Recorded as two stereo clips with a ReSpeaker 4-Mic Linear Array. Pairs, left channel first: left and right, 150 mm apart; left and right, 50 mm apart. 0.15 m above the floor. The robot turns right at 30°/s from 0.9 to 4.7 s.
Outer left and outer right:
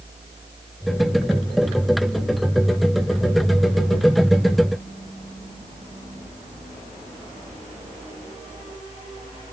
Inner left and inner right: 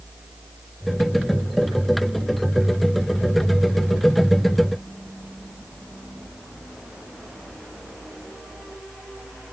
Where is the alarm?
No alarm in this recording.